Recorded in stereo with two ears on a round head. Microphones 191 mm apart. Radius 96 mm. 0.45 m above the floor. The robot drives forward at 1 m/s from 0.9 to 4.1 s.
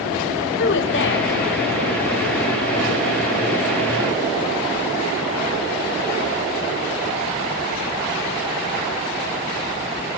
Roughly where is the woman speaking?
Left.